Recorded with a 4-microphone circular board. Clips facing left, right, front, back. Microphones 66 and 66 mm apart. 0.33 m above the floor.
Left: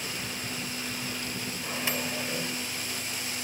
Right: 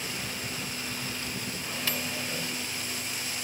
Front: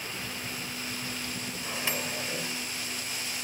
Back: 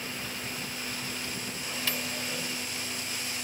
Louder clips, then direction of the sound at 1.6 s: Left 3 dB, front 2 dB; 45° left.